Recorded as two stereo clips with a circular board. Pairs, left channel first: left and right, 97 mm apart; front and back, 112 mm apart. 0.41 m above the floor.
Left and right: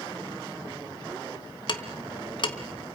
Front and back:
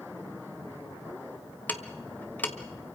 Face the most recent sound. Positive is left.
turn(degrees=70)